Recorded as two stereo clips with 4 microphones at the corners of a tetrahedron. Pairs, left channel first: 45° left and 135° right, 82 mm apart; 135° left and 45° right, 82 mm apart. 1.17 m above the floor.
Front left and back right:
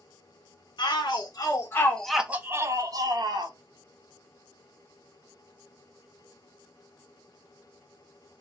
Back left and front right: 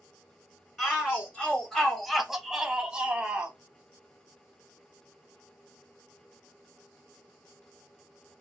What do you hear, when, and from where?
0.8 s a shout: 60° left, 0.9 m; by 3.5 s 120° right, 0.9 m